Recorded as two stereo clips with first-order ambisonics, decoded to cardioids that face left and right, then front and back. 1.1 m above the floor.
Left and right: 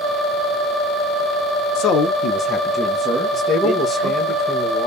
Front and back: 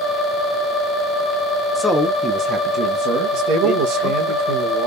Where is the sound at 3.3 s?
165° left, 1.1 m.